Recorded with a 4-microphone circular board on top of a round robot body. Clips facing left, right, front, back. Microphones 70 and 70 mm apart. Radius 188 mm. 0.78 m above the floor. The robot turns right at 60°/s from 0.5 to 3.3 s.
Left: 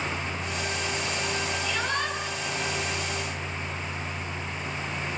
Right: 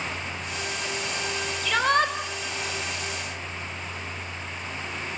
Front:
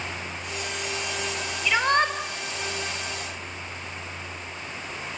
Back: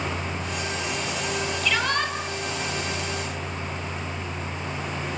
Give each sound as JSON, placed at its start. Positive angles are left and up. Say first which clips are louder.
{"t": 1.6, "sound": "a shout", "louder": "right 11 dB, front 5 dB", "azimuth_deg": -80, "distance_m": 5.5}